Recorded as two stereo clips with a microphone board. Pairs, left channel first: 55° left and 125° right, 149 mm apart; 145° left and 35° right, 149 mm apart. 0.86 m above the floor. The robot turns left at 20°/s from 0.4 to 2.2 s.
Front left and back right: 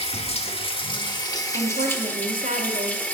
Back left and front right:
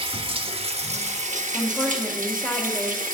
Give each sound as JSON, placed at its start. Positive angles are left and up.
{"t": 0.0, "sound": "running water", "azimuth_deg": 15, "distance_m": 0.7}
{"t": 1.5, "sound": "a woman speaking", "azimuth_deg": -120, "distance_m": 1.4}